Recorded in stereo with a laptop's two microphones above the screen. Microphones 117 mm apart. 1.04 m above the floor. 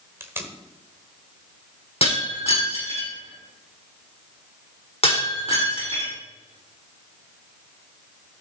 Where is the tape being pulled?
20° right (ahead or behind), 1.3 m.